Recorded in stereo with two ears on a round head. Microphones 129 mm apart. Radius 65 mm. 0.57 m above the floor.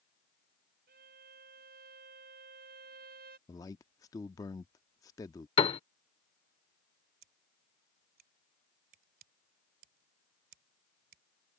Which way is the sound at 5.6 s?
35° left (ahead or behind).